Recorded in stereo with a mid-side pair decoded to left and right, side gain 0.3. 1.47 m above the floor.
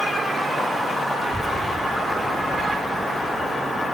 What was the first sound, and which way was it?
A child speaking, 15° right.